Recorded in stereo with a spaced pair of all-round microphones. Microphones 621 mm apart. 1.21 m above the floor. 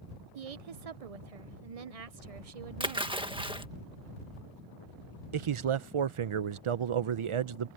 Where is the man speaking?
55° right (ahead or behind).